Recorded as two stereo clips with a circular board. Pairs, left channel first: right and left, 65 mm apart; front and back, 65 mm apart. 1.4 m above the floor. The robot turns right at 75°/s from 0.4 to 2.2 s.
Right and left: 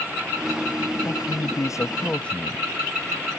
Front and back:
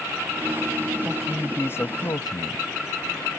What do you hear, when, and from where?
1.1 s a man speaking: 105° right; by 2.6 s 20° right